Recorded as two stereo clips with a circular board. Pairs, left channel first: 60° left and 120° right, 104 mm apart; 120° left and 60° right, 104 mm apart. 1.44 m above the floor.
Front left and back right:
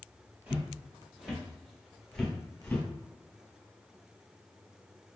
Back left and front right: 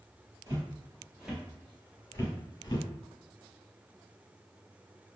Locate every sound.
0.5 s footsteps: 65° right, 1.6 m; by 2.9 s 125° left, 1.7 m